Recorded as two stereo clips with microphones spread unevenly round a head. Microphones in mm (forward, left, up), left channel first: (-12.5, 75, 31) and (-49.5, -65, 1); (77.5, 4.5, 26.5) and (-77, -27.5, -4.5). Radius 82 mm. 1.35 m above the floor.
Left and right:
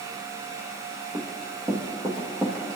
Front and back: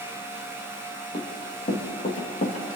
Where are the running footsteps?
35° right, 3 m; by 2.8 s 15° right, 3 m.